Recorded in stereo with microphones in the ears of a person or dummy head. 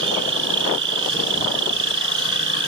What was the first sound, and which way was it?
An insect, 75° right (ahead or behind).